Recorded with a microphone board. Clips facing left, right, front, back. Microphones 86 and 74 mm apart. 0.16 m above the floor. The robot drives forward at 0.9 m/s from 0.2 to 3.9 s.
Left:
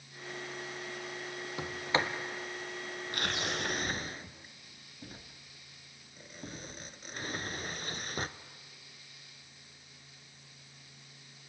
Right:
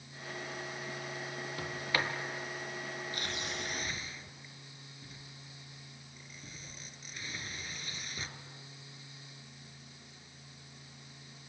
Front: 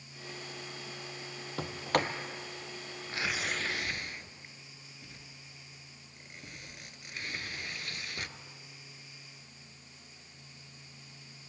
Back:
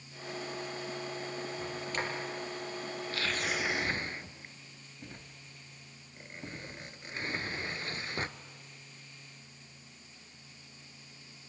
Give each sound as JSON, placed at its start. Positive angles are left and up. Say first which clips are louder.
{"t": 1.6, "sound": "a sliding door", "louder": "left 3 dB, front 9 dB", "azimuth_deg": 20, "distance_m": 1.8}